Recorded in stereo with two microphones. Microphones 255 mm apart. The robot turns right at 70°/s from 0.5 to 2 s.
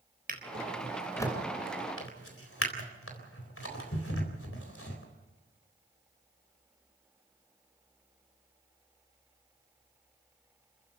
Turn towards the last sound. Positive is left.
turn(degrees=65)  # may be behind; listen again after turning